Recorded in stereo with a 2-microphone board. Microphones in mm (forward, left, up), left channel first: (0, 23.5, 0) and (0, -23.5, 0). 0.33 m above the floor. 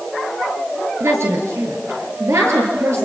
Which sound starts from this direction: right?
A woman speaking, at 1.0 s.